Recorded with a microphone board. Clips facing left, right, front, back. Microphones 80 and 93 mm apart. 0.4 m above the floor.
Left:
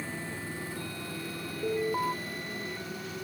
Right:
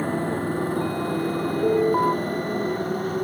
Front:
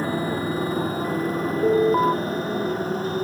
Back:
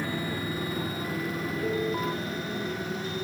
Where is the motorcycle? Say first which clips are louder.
Right 13 dB, front 7 dB; 50° right.